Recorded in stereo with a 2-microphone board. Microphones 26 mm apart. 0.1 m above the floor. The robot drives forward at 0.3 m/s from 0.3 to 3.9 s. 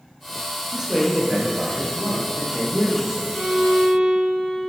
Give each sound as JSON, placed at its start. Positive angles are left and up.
{"t": 0.7, "sound": "a man speaking", "side_deg": -20, "distance_m": 1.9}
{"t": 3.3, "sound": "a violin", "side_deg": -25, "distance_m": 1.6}